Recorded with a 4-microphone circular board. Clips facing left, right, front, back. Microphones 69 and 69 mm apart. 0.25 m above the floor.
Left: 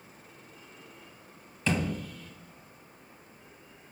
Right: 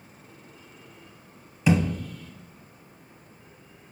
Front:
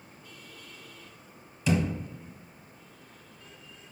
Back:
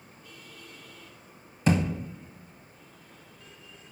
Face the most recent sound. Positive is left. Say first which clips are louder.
# right 7 dB, back 2 dB
turn(degrees=-165)